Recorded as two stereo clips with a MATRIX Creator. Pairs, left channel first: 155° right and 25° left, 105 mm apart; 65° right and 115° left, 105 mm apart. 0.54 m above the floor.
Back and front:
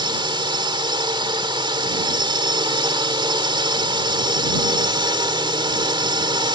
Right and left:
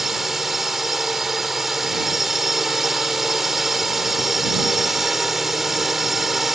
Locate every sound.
0.0 s a drone: 25° left